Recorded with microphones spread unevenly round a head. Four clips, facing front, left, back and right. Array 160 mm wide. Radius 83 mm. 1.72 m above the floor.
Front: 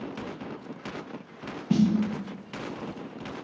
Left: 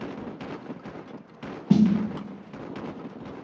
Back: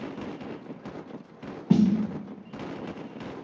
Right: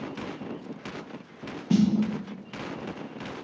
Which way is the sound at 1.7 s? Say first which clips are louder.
Left 3 dB, back 2 dB; 135° left.